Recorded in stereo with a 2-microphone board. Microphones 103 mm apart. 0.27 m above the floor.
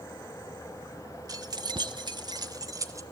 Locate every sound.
1.3 s keys jangling: 40° right (ahead or behind), 1.1 m; by 3.0 s 35° right (ahead or behind), 1.8 m